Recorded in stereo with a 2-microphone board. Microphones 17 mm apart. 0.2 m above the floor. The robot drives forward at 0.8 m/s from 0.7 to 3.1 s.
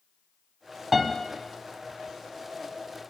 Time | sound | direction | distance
0.9 | a piano | 15° right (ahead or behind) | 0.8 m